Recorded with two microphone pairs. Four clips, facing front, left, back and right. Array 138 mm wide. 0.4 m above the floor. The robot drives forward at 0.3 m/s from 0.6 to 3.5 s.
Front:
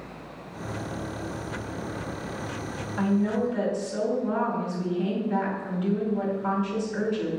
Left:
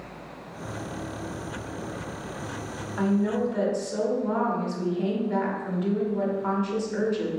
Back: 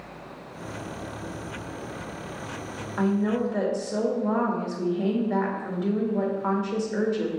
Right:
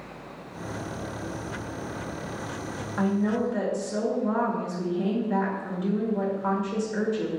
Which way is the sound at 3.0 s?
160° right.